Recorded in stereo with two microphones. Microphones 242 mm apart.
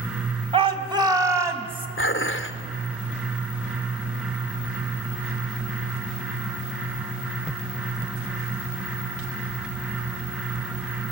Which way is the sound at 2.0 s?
60° left (ahead or behind).